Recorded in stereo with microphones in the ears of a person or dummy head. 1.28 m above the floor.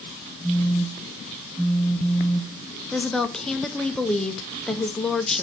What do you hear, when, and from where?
0.4 s a phone buzzing: 5° right (ahead or behind), 0.9 m
2.9 s a woman speaking: centre (ahead or behind), 0.7 m